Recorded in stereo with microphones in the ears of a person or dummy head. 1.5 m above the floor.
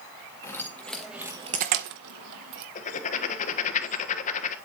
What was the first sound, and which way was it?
Keys jangling, 15° left (ahead or behind).